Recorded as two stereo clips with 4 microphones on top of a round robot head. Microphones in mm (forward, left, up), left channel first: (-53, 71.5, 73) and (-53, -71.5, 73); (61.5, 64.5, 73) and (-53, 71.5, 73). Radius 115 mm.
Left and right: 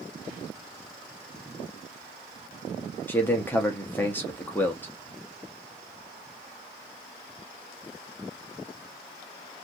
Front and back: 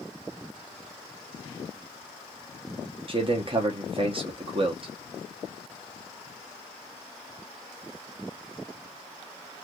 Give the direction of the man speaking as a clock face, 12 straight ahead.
7 o'clock.